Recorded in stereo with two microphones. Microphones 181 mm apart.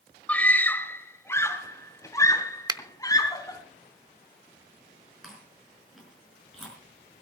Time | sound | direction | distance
0.3 | a scream | 5° left (ahead or behind) | 1.4 m
2.7 | a finger snap | 20° right (ahead or behind) | 0.6 m
5.2 | chewing | centre (ahead or behind) | 5 m